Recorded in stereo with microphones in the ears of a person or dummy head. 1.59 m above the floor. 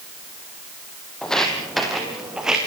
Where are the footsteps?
5° left (ahead or behind), 3.5 m; by 2.6 s 5° right (ahead or behind), 4 m.